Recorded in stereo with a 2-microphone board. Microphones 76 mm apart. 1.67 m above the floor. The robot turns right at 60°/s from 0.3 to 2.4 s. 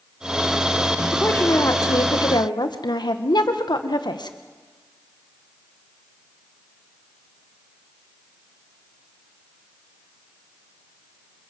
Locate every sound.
1.1 s a woman speaking: 15° left, 1.8 m; by 4.4 s 95° left, 1.8 m